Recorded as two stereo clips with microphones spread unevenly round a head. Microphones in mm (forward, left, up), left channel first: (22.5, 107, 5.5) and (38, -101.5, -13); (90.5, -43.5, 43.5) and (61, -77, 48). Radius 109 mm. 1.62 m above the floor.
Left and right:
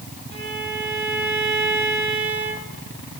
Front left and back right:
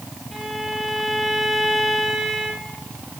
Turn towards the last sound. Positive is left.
turn(degrees=-45)